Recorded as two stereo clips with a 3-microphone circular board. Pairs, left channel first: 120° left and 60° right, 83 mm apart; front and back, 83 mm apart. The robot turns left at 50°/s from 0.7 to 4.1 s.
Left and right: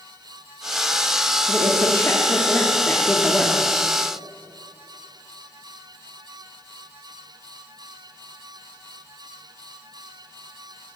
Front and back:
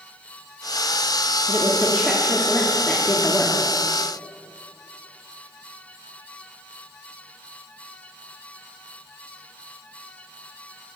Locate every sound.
1.5 s a woman speaking: 130° left, 1.3 m; by 3.7 s 20° left, 1.3 m